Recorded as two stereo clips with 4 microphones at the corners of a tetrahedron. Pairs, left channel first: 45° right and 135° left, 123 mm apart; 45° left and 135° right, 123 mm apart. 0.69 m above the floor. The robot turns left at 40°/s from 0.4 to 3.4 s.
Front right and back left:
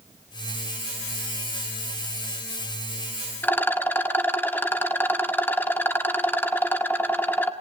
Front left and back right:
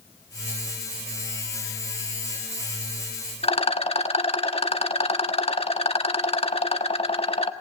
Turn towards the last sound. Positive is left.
turn(degrees=25)